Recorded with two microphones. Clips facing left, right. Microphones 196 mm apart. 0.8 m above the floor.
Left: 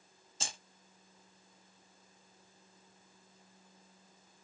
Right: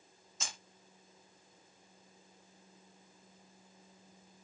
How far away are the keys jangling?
About 0.8 m.